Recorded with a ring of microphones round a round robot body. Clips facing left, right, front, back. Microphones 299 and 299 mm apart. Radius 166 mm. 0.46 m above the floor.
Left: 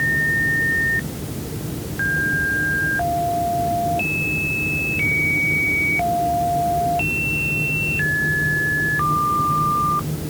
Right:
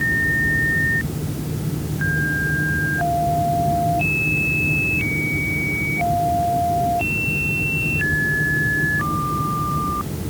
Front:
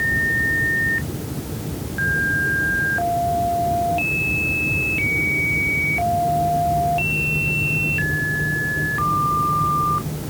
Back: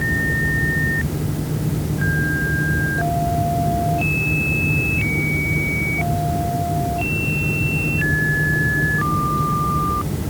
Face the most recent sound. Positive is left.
No sound to turn to.